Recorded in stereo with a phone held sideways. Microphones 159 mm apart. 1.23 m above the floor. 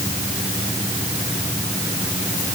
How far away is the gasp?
I don't hear a gasp.